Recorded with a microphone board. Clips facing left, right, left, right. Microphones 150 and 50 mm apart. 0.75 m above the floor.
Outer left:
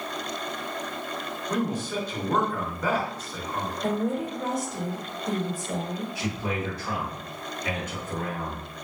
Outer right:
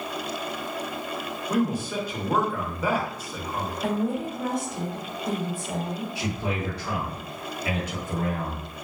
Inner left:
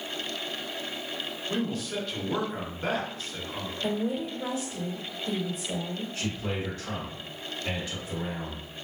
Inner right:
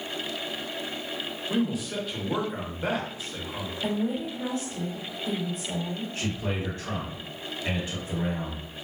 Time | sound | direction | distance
1.5 | a man speaking | 10° right (ahead or behind) | 0.9 m
3.8 | a woman speaking | 55° right (ahead or behind) | 1.3 m
6.2 | a man speaking | 30° right (ahead or behind) | 1.8 m